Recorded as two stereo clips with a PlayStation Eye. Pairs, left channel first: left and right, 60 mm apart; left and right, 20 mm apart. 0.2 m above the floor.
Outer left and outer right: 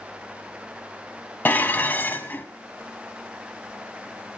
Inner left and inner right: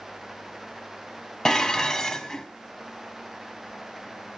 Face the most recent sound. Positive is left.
turn(degrees=30)  # may be behind; listen again after turning